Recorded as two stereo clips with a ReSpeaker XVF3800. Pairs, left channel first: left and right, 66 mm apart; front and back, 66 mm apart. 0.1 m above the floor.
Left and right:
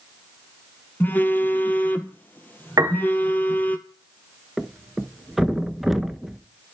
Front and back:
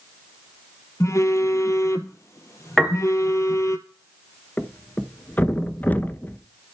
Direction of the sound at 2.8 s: 85° right.